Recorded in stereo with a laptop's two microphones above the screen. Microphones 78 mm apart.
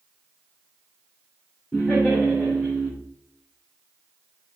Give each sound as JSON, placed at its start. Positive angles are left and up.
{"t": 1.7, "sound": "laughter", "side_deg": 10, "distance_m": 3.5}